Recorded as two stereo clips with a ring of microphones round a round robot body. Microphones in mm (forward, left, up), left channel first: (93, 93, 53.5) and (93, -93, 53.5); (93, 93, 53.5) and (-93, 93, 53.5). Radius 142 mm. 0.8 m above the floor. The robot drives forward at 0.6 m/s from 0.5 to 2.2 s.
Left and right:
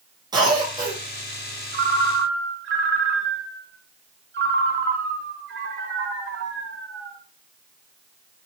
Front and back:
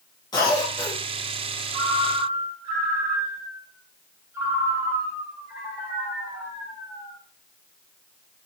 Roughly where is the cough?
Ahead right.